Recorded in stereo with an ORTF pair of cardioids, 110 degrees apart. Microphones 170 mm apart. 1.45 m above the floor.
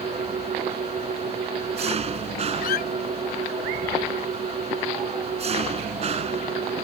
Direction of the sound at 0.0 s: 40° right.